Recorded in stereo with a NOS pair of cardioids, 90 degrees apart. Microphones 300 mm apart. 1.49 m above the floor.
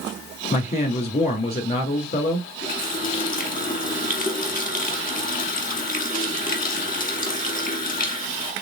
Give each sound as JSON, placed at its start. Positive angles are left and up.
{"t": 0.5, "sound": "a man speaking", "azimuth_deg": 35, "distance_m": 2.5}
{"t": 2.6, "sound": "a running tap", "azimuth_deg": 30, "distance_m": 1.9}